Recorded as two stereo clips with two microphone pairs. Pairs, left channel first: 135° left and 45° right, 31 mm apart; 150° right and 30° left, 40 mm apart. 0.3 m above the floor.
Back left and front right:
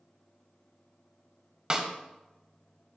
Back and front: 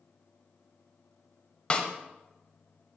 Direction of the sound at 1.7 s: 95° right.